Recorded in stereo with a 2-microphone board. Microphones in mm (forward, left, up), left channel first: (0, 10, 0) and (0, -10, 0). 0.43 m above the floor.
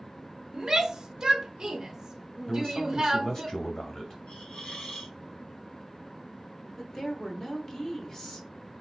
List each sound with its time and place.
0.5 s a shout: 30° right (ahead or behind), 0.8 m
2.5 s a man speaking: 35° left (ahead or behind), 2 m
4.3 s a hiss: 70° left (ahead or behind), 1.4 m
6.8 s a woman speaking: 35° left (ahead or behind), 1.1 m